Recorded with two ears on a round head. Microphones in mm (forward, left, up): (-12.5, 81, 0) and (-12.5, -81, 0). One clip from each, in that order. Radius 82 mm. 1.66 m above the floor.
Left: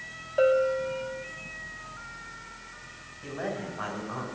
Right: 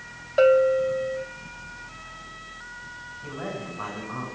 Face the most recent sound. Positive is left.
turn(degrees=35)  # may be behind; listen again after turning